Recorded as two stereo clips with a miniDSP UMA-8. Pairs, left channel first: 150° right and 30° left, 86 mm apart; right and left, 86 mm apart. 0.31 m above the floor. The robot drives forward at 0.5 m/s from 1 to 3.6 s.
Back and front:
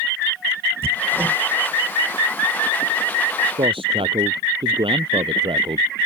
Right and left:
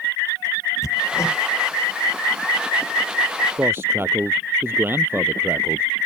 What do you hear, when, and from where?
0.8 s hammering: 35° right; by 1.4 s 40° right
3.6 s a man speaking: 25° left